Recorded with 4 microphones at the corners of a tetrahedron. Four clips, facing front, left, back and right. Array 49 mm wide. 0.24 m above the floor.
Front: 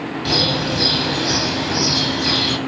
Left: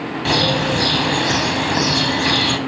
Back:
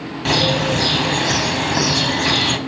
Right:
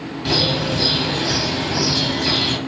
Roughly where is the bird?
Behind left.